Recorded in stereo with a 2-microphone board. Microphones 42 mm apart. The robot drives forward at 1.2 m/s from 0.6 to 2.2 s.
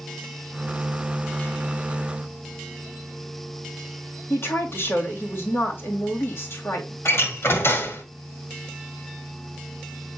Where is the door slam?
75° left (ahead or behind), 1.8 m.